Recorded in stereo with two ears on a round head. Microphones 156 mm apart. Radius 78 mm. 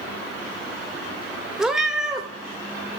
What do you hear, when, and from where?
1.6 s a cat meowing: 5° right (ahead or behind), 0.7 m